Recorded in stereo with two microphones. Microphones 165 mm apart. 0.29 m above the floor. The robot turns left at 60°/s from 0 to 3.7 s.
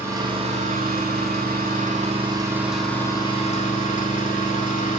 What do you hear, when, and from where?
0.0 s an engine running: 15° right, 9 m; by 5.0 s 125° left, 9 m